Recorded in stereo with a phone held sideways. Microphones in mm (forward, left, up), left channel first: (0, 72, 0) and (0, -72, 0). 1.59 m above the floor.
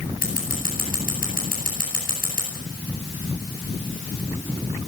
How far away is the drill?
I don't hear a drill.